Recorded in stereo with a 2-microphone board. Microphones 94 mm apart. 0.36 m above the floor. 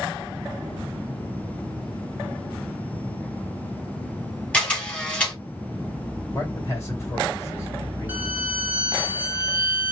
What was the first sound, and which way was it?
A camera shutter, 10° left (ahead or behind).